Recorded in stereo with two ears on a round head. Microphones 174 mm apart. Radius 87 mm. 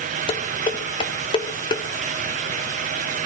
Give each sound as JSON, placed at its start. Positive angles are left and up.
{"t": 0.3, "sound": "dishes clattering", "side_deg": 25, "distance_m": 1.8}